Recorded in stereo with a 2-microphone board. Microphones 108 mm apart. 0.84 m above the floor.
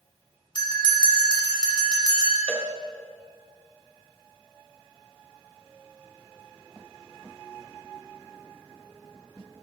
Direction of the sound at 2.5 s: 10° left (ahead or behind).